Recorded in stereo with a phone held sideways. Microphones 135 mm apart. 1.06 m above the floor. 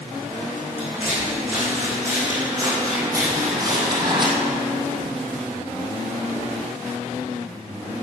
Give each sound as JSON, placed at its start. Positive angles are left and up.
{"t": 0.8, "sound": "footsteps", "side_deg": -15, "distance_m": 4.5}